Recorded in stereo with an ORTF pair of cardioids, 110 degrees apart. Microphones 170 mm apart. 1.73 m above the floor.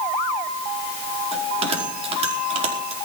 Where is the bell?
35° right, 5 m.